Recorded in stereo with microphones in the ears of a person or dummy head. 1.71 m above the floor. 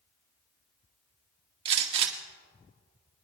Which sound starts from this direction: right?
A gunshot, at 1.6 s.